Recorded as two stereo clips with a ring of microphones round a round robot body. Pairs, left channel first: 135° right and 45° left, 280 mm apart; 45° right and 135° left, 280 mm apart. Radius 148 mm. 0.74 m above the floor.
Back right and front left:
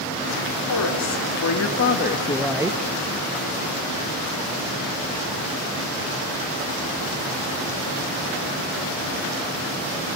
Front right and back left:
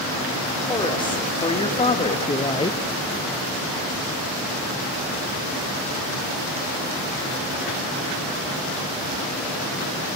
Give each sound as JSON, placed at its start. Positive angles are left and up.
{"t": 0.7, "sound": "a woman speaking", "azimuth_deg": -120, "distance_m": 2.5}